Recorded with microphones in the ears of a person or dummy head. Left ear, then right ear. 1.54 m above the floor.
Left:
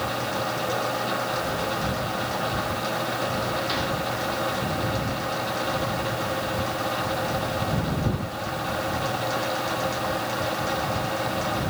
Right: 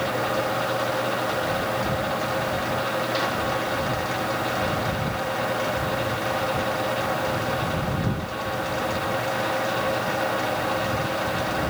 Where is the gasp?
I don't hear a gasp.